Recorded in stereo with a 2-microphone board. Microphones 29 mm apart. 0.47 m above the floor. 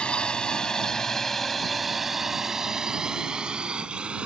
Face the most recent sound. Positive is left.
turn(degrees=-40)  # may be behind; listen again after turning